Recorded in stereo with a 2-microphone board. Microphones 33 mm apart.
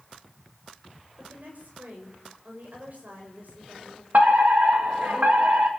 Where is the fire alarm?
65° right (ahead or behind), 3 m.